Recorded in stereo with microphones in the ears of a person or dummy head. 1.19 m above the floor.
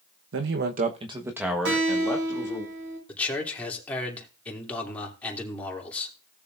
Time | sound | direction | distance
0.3 | a man speaking | 70° right (ahead or behind) | 1.2 m
1.6 | a guitar | 75° right (ahead or behind) | 6 m
3.1 | a man speaking | 10° left (ahead or behind) | 3 m